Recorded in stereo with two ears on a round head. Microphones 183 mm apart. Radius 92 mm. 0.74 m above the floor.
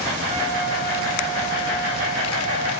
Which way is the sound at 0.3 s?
30° right (ahead or behind).